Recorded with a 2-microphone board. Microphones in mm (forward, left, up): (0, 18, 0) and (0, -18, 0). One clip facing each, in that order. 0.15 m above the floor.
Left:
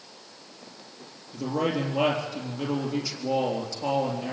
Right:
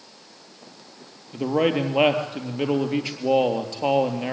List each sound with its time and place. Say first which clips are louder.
1.3 s a man speaking: right 6 dB; 45° right (ahead or behind), 3.5 m